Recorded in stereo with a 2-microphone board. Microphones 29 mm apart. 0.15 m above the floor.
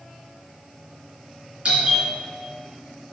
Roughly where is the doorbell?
Right.